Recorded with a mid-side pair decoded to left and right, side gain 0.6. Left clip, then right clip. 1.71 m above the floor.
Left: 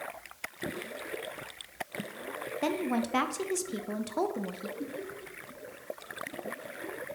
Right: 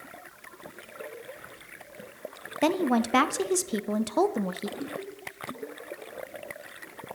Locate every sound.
2.6 s a woman speaking: 35° right, 0.7 m
4.8 s laughter: 5° right, 5.5 m